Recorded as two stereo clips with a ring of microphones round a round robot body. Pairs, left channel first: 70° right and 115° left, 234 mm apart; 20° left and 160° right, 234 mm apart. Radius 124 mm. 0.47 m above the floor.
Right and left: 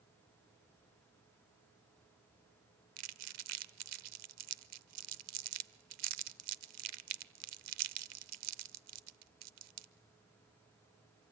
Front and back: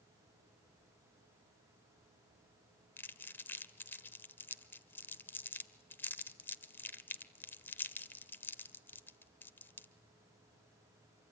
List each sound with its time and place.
3.0 s crumpling: 105° left, 0.7 m